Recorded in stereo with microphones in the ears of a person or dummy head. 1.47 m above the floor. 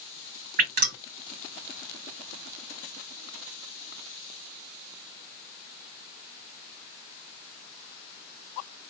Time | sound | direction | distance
0.6 | dripping | 50° right (ahead or behind) | 2 m